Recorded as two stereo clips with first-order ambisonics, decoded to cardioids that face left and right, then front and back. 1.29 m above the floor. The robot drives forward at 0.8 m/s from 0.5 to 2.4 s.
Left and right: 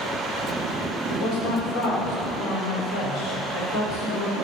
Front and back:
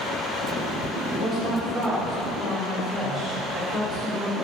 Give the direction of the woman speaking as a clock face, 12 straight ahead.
9 o'clock.